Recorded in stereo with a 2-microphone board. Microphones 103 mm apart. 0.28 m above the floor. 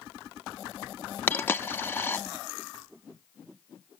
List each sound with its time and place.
1.3 s a dropped coin: 20° left (ahead or behind), 0.6 m